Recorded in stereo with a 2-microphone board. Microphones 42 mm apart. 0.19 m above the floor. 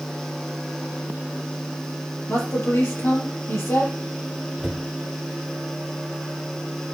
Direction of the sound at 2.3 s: 75° left (ahead or behind).